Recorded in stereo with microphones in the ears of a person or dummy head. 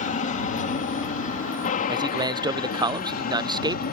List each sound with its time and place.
0.0 s an aircraft: 40° left (ahead or behind); by 3.9 s 50° left (ahead or behind)
1.9 s a man speaking: 15° right (ahead or behind)